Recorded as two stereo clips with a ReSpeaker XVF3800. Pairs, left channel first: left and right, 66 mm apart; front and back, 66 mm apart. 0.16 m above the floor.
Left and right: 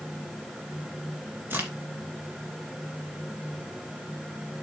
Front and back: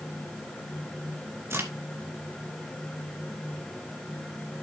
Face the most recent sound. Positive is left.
turn(degrees=-145)